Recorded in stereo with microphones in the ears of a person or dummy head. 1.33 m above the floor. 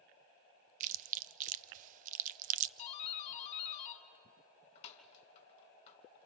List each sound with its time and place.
0.8 s chewing: 45° right (ahead or behind), 0.6 m
2.8 s a doorbell: 35° left (ahead or behind), 2.5 m